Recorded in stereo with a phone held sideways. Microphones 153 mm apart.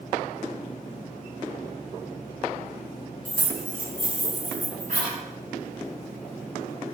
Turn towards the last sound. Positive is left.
turn(degrees=-60)  # may be behind; listen again after turning